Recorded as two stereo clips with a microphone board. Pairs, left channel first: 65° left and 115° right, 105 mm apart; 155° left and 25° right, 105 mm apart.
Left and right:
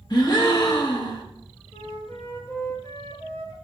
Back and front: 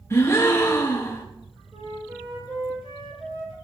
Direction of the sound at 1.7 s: 10° left.